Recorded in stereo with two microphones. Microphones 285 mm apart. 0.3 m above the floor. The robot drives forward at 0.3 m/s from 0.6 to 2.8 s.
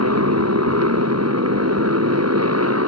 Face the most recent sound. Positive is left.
turn(degrees=-60)  # may be behind; listen again after turning